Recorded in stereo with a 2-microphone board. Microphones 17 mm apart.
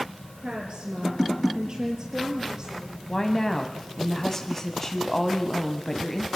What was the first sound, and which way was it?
A woman speaking, 55° right (ahead or behind).